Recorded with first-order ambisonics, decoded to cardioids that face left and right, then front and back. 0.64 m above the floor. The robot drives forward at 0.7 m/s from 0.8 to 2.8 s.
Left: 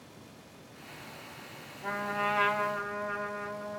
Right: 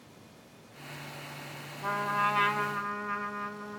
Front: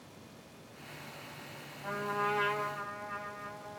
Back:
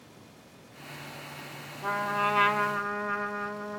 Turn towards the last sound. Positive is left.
turn(degrees=-145)